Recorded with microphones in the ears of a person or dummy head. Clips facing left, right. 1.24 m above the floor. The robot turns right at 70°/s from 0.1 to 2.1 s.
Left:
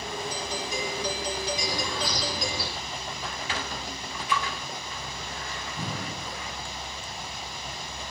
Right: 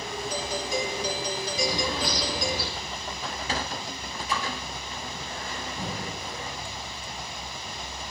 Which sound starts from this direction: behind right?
A doorbell, at 0.3 s.